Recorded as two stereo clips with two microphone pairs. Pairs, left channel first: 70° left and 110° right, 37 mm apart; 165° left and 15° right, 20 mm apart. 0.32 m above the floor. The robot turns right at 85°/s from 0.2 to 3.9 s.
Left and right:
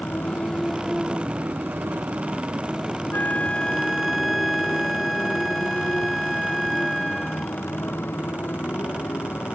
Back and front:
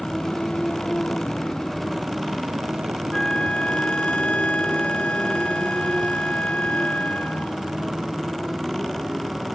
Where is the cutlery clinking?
I don't hear cutlery clinking.